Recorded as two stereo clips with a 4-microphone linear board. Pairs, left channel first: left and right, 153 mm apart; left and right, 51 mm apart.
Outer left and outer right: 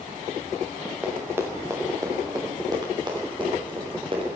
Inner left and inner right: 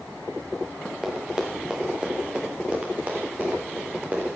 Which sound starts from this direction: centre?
Running footsteps, at 1.0 s.